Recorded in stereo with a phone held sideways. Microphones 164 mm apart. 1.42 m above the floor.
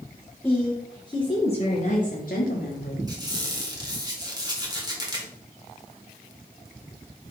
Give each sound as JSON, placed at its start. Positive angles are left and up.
{"t": 0.4, "sound": "a woman speaking", "side_deg": 15, "distance_m": 1.4}
{"t": 3.1, "sound": "a squeak", "side_deg": -25, "distance_m": 2.0}